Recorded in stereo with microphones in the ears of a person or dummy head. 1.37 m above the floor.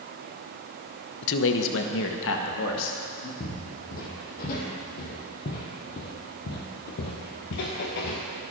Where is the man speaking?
65° left (ahead or behind), 0.9 m; by 3.3 s 75° left (ahead or behind), 2 m.